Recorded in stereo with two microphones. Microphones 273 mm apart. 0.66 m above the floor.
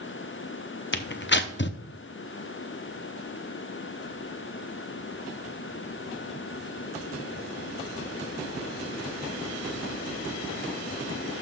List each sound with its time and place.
0.9 s tearing paper: 45° left (ahead or behind), 0.6 m